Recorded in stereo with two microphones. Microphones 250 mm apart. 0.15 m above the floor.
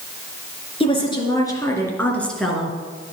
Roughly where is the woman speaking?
Left.